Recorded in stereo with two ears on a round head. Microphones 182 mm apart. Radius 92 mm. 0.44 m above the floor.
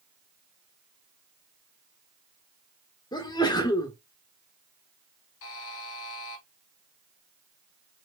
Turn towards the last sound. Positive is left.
turn(degrees=70)  # may be behind; listen again after turning